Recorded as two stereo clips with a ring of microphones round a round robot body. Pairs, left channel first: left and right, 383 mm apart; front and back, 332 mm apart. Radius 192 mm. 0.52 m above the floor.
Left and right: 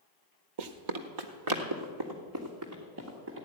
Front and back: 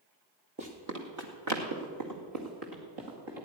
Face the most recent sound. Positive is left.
turn(degrees=-150)